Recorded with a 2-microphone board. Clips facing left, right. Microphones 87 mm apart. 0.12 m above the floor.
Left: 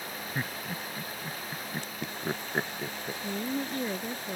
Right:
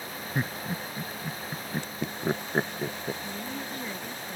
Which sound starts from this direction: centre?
Laughter, at 0.3 s.